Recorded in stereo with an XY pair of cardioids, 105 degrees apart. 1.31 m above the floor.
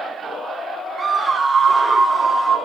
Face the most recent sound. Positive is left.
turn(degrees=-35)